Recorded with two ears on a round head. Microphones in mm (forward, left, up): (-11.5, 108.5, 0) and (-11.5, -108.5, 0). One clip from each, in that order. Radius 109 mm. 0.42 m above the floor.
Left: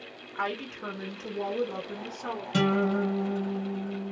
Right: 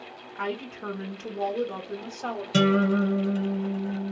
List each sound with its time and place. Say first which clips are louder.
0.3 s a woman speaking: even; 25° left (ahead or behind), 1.0 m; by 2.4 s 45° right (ahead or behind), 1.1 m
2.5 s a guitar: right 3 dB; 30° right (ahead or behind), 2.0 m